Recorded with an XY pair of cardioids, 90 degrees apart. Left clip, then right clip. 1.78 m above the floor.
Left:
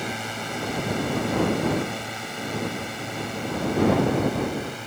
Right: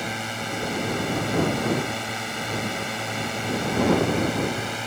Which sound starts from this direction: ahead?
A drone, at 0.0 s.